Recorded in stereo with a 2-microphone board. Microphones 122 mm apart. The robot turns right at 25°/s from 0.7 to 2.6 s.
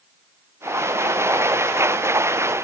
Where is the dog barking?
No dog barking in this recording.